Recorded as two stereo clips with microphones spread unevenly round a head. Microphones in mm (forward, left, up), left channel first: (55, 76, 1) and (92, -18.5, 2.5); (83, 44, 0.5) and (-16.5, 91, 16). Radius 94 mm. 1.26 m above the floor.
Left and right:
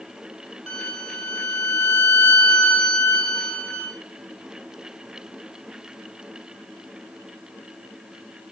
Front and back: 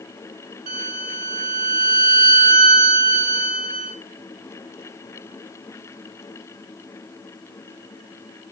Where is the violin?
160° right, 4 m.